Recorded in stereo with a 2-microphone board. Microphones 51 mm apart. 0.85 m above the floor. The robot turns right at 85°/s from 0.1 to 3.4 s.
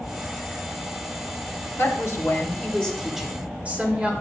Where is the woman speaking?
70° left, 3 m; by 4.1 s 150° right, 3 m.